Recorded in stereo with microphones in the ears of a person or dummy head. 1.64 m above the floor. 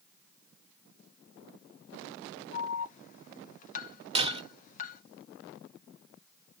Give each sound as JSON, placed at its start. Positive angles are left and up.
{"t": 2.5, "sound": "an alarm", "side_deg": 45, "distance_m": 1.2}
{"t": 4.2, "sound": "breaking glass", "side_deg": -30, "distance_m": 1.6}